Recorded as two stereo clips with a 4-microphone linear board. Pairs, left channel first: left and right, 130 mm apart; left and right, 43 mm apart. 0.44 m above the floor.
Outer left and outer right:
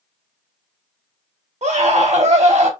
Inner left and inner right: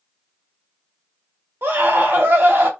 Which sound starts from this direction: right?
A scream, at 1.6 s.